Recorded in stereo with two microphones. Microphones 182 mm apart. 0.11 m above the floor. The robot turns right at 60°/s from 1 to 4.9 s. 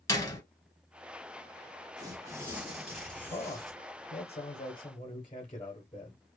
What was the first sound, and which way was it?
A door slam, 20° left (ahead or behind).